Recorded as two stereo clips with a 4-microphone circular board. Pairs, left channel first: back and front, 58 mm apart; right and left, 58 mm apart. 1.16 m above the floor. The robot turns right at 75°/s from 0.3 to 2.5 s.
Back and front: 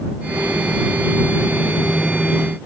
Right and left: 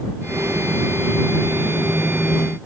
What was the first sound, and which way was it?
Only background noise.